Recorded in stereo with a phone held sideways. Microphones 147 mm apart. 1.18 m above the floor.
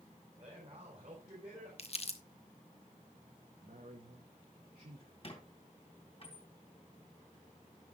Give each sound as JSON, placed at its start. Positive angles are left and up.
{"t": 0.4, "sound": "a man speaking", "side_deg": -45, "distance_m": 5.0}
{"t": 1.8, "sound": "crumpling", "side_deg": 45, "distance_m": 1.0}
{"t": 3.6, "sound": "a man speaking", "side_deg": -75, "distance_m": 1.4}
{"t": 5.2, "sound": "a squeak", "side_deg": 45, "distance_m": 3.0}